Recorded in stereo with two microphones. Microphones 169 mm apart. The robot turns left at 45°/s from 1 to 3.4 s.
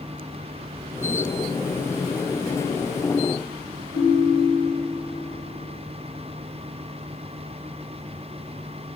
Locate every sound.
3.9 s a ringtone: 20° right (ahead or behind), 2.5 m